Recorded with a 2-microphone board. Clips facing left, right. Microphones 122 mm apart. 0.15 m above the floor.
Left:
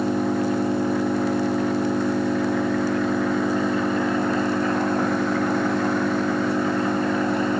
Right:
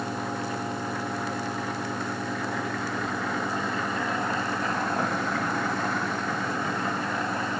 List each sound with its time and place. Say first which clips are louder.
0.0 s an engine running: left 9 dB; 70° left (ahead or behind)